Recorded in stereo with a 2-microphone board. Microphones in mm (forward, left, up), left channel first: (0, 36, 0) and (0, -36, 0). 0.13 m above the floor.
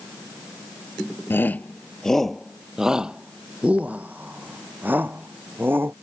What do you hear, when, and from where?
1.3 s a shout: 30° left (ahead or behind); by 5.9 s 25° right (ahead or behind)